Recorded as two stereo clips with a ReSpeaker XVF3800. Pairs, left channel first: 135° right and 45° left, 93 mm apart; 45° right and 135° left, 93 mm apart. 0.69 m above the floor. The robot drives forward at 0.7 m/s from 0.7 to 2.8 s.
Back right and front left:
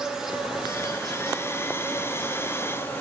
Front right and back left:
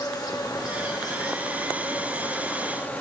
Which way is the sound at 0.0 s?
35° right.